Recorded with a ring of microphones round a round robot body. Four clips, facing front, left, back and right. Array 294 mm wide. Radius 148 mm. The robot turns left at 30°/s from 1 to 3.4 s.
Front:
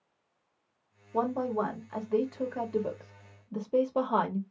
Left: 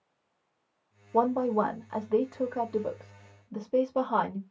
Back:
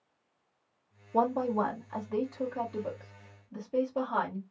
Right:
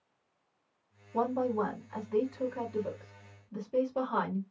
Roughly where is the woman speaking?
Left.